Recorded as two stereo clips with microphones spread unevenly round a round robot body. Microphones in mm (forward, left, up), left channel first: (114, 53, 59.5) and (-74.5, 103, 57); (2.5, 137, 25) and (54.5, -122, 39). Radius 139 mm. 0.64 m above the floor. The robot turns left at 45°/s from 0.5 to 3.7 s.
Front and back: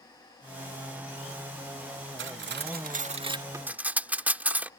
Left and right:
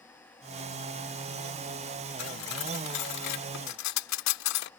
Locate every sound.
2.2 s cutlery clinking: 150° left; by 4.7 s 85° left